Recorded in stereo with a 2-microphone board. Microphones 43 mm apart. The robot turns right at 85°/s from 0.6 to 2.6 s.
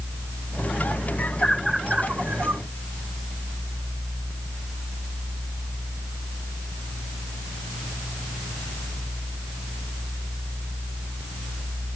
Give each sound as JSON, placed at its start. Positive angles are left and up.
{"t": 1.2, "sound": "a bird", "side_deg": 45}